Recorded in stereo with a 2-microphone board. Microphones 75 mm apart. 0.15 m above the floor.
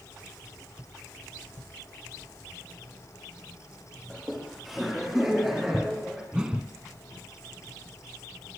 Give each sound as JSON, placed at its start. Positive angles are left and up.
{"t": 4.1, "sound": "laughter", "side_deg": 0, "distance_m": 5.0}
{"t": 6.3, "sound": "a whoosh", "side_deg": -10, "distance_m": 1.5}